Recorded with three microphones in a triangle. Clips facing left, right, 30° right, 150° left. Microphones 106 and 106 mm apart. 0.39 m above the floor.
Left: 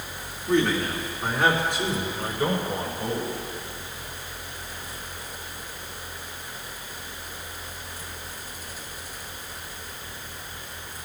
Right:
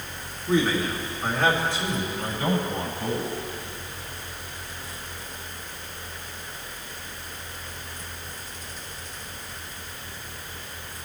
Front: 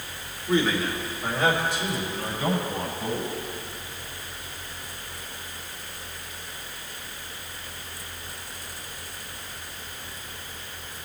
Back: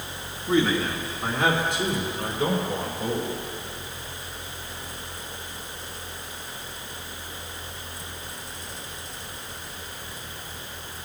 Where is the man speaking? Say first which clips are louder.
Even, back 1 dB; 175° right, 3.5 m; by 3.4 s 145° left, 6 m.